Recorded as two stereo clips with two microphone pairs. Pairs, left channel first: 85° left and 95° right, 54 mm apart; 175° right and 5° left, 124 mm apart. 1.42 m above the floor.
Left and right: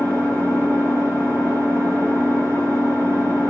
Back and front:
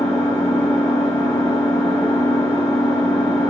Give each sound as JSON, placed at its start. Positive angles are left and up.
{"t": 0.0, "sound": "an engine running", "azimuth_deg": -115, "distance_m": 4.0}